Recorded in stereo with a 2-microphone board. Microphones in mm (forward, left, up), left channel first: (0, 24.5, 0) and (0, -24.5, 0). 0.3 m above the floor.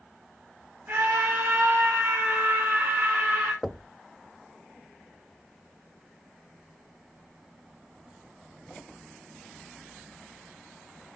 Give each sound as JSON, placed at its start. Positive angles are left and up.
{"t": 0.9, "sound": "a scream", "side_deg": -40, "distance_m": 5.0}
{"t": 3.6, "sound": "knocking", "side_deg": -5, "distance_m": 0.6}